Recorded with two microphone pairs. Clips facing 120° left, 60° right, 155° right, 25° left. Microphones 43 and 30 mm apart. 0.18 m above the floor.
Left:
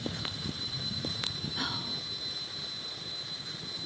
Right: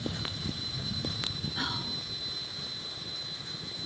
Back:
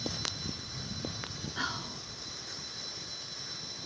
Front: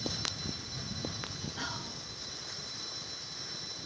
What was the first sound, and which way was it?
Whispering, 125° right.